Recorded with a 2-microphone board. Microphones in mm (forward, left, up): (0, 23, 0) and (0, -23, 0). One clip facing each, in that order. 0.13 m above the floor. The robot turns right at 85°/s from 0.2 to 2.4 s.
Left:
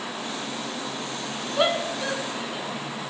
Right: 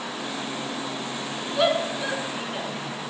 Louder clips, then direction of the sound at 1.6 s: Right 1 dB; 15° left (ahead or behind).